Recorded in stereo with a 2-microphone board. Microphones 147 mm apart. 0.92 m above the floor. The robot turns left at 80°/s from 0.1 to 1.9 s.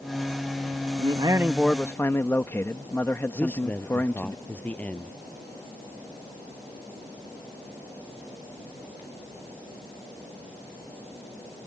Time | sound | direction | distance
1.0 | a man speaking | 125° right | ?
3.4 | a man speaking | 10° left (ahead or behind) | ?